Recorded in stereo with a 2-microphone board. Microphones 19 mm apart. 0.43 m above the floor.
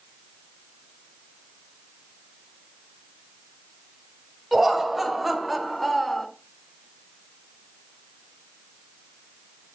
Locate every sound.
4.5 s laughter: 15° right (ahead or behind), 3 m; by 6.3 s 10° left (ahead or behind), 1.4 m